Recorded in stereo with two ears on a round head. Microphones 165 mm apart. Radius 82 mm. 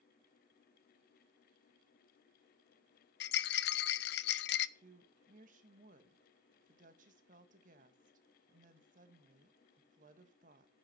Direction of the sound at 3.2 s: 65° left (ahead or behind).